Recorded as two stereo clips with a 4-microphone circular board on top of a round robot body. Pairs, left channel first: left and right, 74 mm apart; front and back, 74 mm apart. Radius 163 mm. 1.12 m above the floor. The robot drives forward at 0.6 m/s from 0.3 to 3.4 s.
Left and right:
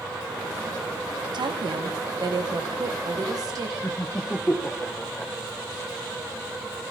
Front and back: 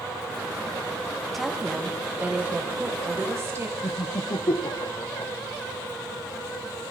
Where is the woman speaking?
90° right, 1.8 m; by 3.7 s 125° right, 2 m.